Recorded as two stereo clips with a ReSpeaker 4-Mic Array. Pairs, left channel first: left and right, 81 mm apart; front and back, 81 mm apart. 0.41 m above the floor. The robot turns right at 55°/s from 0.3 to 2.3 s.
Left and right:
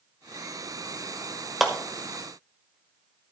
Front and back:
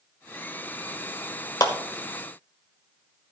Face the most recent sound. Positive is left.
turn(degrees=35)